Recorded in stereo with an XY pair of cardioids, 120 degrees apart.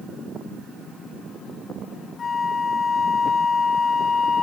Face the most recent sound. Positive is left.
turn(degrees=30)